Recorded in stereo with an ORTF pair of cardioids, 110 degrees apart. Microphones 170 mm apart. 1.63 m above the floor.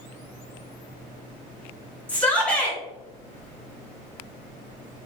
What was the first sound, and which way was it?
A shout, 10° left.